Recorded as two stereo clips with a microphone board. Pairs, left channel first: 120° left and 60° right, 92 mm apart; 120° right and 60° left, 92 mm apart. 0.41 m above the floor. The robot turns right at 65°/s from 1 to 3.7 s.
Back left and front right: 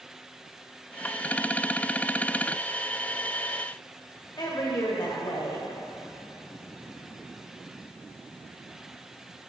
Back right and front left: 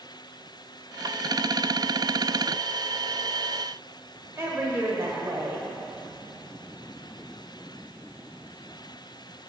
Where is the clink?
I don't hear a clink.